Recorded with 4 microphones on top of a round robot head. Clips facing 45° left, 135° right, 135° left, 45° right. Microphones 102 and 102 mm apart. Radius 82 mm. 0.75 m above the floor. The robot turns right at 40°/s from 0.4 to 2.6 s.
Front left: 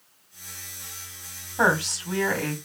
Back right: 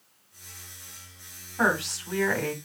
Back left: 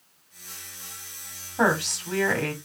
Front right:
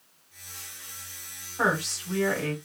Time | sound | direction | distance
1.6 | a woman speaking | 105° left | 2.5 m